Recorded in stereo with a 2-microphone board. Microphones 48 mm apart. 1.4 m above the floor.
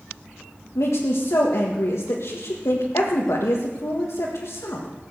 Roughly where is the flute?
No flute in this recording.